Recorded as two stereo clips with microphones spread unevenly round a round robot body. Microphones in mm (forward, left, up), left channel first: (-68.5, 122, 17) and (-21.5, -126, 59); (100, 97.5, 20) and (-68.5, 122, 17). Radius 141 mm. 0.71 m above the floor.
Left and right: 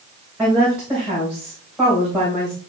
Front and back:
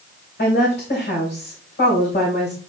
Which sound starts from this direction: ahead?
A woman speaking, at 0.4 s.